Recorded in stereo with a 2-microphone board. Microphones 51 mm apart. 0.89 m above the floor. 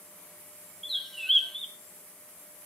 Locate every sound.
0.8 s a bird: 5° left (ahead or behind), 0.9 m